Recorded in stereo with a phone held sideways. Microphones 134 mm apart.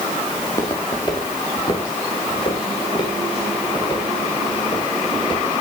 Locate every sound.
0.4 s footsteps: 25° left (ahead or behind), 4 m; by 5.5 s 40° left (ahead or behind), 8 m